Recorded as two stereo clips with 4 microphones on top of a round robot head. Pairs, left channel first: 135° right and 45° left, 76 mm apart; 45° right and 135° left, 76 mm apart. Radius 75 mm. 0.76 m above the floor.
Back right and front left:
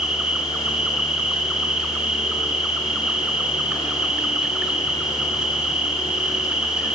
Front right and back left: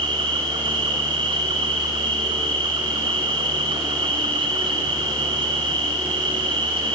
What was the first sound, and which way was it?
An insect, 125° left.